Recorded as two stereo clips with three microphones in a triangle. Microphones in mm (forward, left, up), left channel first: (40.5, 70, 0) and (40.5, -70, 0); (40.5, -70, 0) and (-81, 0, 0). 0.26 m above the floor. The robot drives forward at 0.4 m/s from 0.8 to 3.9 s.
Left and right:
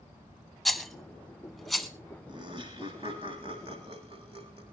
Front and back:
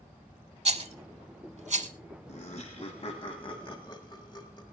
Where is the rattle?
Straight behind, 0.8 m.